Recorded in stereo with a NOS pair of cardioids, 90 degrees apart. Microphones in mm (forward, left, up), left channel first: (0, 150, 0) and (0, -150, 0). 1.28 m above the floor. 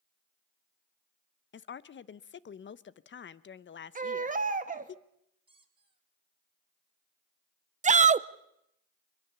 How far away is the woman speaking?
About 0.9 m.